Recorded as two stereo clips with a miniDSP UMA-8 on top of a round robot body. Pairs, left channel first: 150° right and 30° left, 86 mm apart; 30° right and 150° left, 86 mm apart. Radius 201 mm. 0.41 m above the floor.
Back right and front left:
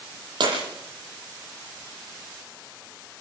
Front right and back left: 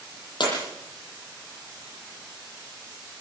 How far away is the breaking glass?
About 9.5 m.